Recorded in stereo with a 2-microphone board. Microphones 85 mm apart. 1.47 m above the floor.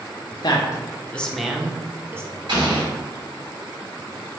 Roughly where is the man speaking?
Left.